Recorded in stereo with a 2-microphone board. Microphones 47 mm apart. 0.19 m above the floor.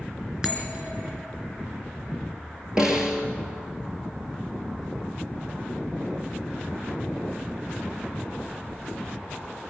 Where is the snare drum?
15° right (ahead or behind), 2.5 m.